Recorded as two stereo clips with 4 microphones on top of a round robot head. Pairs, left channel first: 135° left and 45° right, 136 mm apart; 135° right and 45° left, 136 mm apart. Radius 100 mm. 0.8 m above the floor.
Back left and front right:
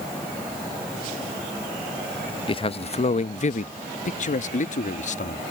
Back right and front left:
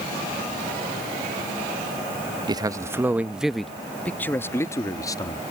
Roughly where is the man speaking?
Left.